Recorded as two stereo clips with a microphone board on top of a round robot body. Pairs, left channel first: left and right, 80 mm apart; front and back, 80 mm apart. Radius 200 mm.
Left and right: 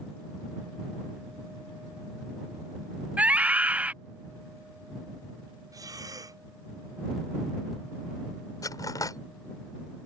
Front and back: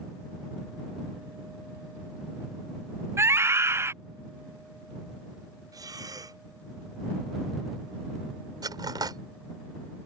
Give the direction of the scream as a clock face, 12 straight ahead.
5 o'clock.